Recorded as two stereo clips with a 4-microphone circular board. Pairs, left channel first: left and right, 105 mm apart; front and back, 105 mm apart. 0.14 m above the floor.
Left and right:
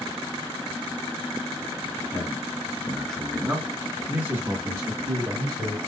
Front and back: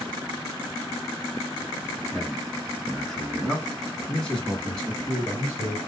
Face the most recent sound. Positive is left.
turn(degrees=-70)